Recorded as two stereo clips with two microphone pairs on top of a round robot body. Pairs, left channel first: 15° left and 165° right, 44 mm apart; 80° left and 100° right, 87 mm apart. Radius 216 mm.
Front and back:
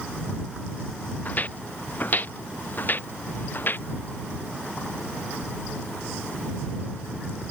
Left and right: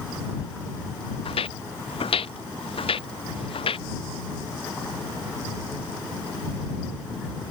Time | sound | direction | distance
1.2 | footsteps | 70° left | ?